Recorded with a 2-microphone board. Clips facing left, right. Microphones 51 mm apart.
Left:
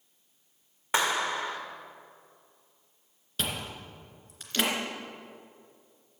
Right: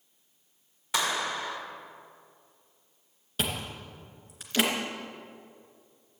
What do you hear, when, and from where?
0.9 s a clap: 35° left (ahead or behind), 1.6 m
3.4 s chewing: 10° right (ahead or behind), 2.5 m